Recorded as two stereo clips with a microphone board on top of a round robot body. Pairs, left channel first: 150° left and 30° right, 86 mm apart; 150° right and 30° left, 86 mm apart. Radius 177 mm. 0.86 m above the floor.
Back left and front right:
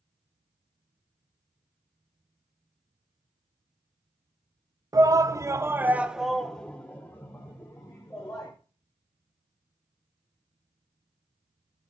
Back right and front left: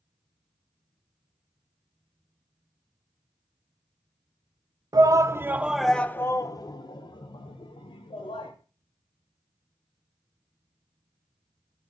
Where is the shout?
5° left, 1.0 m; by 8.5 s 150° right, 2 m.